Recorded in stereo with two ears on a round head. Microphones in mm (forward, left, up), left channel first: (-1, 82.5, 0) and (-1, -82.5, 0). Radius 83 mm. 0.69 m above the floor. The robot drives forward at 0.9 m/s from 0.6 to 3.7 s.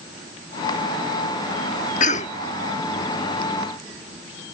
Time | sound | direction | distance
2.0 | a cough | 45° left (ahead or behind) | ?